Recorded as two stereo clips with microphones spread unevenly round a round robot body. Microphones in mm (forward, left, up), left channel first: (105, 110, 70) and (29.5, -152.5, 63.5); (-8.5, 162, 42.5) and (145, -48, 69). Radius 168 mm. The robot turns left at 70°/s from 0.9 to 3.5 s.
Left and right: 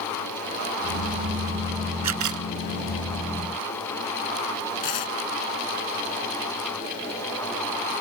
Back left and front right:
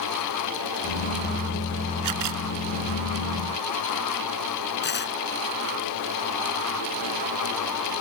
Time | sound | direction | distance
2.0 | a camera shutter | 75° right | ?
4.8 | tearing paper | 75° left | ?